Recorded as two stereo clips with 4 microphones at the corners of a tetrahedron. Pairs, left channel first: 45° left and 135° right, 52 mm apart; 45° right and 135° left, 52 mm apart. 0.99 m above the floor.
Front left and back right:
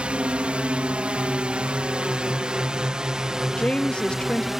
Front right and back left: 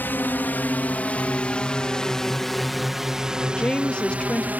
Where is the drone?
75° right; by 4.6 s 145° left.